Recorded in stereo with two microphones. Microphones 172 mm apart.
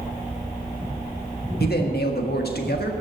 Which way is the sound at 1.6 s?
75° left (ahead or behind).